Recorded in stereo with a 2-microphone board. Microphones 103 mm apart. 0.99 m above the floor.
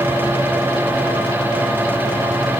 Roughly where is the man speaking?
No man speaking in this recording.